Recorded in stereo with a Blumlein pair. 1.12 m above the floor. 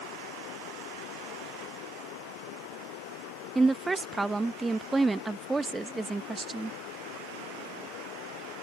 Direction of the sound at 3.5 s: 10° right.